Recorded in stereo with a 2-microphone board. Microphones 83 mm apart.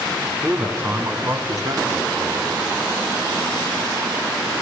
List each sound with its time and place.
0.4 s a man speaking: 15° right (ahead or behind), 2 m; by 2.6 s 60° right (ahead or behind), 2.5 m